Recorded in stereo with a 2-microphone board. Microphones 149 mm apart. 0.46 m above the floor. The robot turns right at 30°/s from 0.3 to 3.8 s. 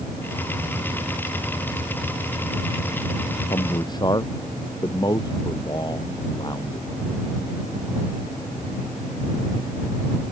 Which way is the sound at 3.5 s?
35° left (ahead or behind).